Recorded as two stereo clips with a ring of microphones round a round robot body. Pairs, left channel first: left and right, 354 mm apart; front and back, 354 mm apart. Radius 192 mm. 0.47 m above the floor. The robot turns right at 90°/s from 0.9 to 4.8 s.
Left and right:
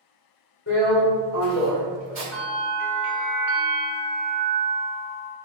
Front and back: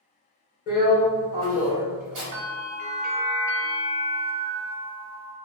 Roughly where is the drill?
Ahead left.